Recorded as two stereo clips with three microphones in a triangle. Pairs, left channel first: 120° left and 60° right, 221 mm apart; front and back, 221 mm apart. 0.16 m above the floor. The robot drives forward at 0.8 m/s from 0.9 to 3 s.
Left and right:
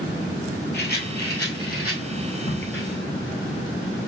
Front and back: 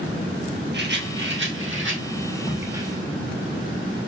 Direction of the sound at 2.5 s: 90° left.